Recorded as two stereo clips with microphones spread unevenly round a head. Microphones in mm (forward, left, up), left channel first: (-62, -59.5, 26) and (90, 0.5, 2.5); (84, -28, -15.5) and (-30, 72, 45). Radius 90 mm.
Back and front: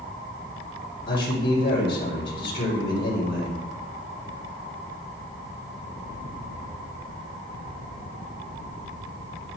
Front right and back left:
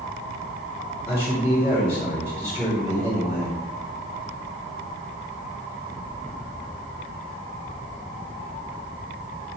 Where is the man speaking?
145° right, 6 m.